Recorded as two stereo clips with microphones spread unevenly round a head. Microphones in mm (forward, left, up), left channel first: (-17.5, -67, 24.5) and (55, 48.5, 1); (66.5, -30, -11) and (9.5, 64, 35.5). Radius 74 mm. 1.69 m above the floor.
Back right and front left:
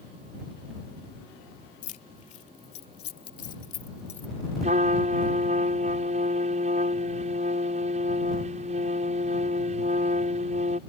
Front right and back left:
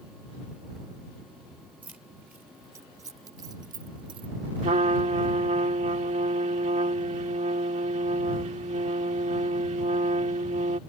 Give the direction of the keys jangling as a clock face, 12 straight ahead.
5 o'clock.